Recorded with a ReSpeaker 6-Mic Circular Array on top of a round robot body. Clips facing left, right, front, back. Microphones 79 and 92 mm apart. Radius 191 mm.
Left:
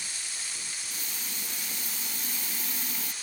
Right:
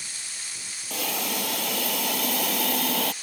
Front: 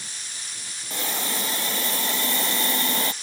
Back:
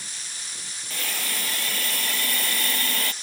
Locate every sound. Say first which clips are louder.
0.9 s a hiss: right 12 dB, front 4 dB; 70° right